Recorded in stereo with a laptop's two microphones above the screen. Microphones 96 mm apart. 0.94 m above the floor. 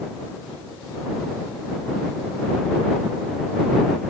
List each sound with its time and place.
Only background noise.